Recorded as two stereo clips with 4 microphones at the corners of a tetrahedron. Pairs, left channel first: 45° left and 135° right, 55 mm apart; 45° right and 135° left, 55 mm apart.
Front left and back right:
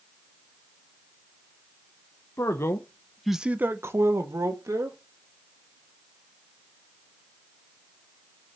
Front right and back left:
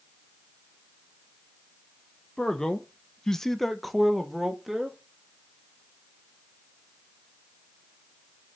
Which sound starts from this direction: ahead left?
A man speaking, at 2.4 s.